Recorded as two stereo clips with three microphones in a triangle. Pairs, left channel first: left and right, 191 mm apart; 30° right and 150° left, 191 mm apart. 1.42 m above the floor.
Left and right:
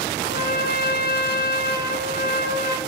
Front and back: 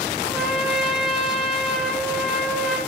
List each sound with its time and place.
0.2 s a trumpet: 60° left, 1.1 m